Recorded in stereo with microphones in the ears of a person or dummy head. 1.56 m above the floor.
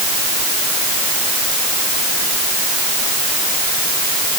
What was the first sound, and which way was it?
Only background noise.